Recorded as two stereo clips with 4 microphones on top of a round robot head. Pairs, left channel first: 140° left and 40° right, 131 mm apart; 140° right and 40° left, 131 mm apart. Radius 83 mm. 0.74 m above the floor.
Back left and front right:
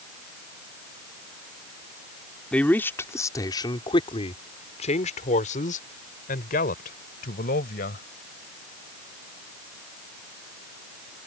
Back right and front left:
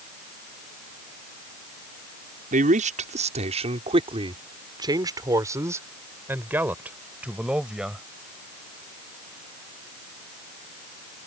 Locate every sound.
2.5 s a man speaking: 55° left; by 8.0 s 125° left